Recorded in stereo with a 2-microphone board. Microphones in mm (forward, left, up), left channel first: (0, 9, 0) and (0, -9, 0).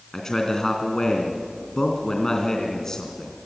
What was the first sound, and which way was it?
A man speaking, 35° left (ahead or behind).